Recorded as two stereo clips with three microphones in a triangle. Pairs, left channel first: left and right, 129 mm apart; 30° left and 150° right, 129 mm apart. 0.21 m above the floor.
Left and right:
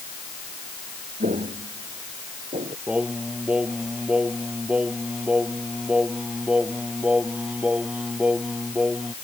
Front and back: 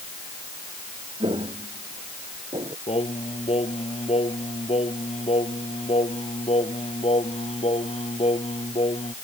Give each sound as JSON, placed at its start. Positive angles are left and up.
{"t": 1.2, "sound": "footsteps", "azimuth_deg": -105}
{"t": 2.9, "sound": "singing", "azimuth_deg": -10}